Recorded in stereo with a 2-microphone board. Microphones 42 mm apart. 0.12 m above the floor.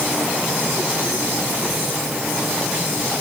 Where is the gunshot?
I don't hear a gunshot.